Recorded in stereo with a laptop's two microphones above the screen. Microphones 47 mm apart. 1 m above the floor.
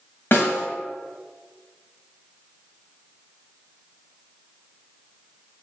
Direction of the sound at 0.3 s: 50° left (ahead or behind).